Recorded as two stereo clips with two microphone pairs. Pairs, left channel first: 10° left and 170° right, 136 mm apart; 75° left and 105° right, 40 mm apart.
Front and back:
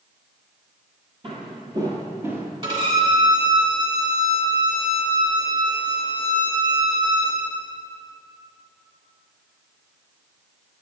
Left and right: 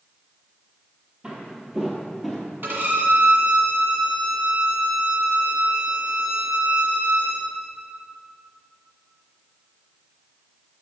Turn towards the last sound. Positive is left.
turn(degrees=-130)